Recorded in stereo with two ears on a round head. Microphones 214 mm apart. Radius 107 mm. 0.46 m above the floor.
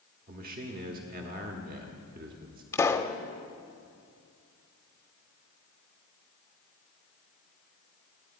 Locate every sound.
0.3 s a man speaking: 35° right (ahead or behind), 1.2 m
2.7 s a pop: 10° left (ahead or behind), 0.7 m